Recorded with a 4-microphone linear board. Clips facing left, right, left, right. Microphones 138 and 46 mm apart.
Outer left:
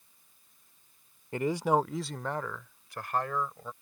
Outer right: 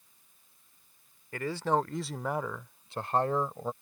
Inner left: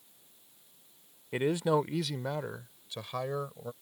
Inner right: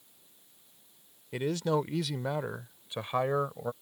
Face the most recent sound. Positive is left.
turn(degrees=-40)  # may be behind; listen again after turning